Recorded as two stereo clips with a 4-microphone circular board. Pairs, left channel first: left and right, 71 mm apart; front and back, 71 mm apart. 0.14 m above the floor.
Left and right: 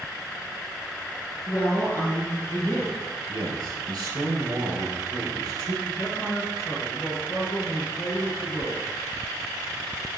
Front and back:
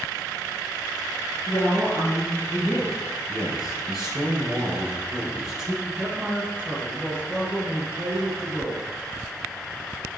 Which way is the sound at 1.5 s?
40° left.